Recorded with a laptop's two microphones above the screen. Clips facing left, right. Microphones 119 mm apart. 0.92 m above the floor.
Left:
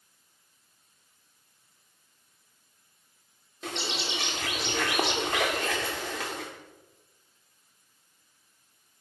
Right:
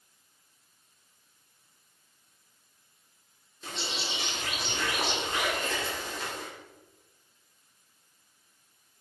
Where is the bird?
80° left, 2 m.